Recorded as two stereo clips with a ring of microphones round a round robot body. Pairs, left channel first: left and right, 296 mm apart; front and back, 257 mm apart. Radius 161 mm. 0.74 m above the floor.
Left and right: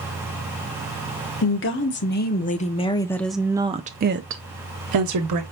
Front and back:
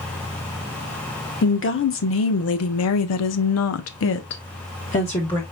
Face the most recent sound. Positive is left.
turn(degrees=-75)